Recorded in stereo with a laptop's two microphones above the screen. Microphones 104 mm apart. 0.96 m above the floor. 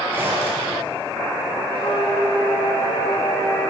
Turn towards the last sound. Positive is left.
turn(degrees=80)